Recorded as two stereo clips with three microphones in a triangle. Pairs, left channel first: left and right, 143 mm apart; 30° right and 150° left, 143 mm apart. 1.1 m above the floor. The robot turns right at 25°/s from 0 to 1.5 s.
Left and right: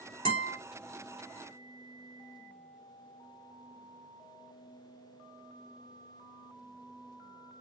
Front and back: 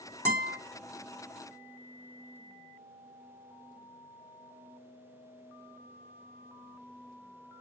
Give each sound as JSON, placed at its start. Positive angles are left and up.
{"t": 0.2, "sound": "a guitar", "azimuth_deg": -105, "distance_m": 1.7}